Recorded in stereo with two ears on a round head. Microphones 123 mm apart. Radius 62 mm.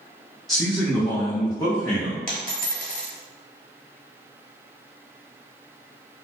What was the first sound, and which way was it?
A man speaking, centre (ahead or behind).